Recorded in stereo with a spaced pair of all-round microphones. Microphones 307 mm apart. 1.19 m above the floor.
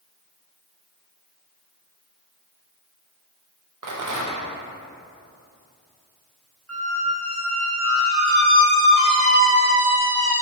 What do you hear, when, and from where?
3.8 s a rattle: 75° right (ahead or behind), 0.5 m
6.7 s a squeak: 45° right (ahead or behind), 0.8 m